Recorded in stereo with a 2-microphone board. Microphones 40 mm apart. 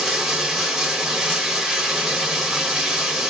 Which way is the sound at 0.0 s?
10° right (ahead or behind).